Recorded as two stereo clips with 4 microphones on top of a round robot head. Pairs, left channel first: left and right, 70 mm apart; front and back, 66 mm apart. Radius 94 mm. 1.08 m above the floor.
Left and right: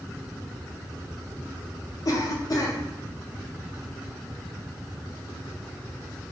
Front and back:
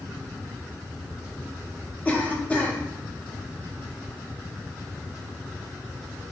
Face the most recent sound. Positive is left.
turn(degrees=65)